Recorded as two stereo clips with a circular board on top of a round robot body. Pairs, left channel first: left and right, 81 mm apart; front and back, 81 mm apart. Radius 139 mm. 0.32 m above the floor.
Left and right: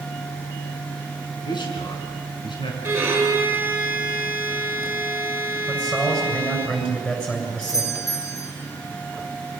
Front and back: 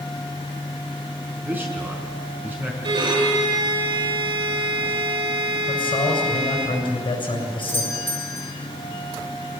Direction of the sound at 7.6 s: 60° left.